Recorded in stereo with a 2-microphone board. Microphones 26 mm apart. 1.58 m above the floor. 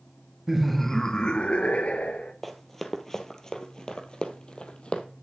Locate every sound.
0.5 s laughter: 5° right (ahead or behind), 0.8 m; by 2.3 s 65° left (ahead or behind), 1.4 m
2.4 s running footsteps: 5° left (ahead or behind), 1.8 m; by 5.0 s 45° left (ahead or behind), 2 m